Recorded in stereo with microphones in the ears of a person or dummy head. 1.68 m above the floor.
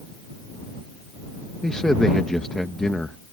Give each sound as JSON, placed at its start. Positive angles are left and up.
{"t": 1.6, "sound": "a man speaking", "side_deg": 5}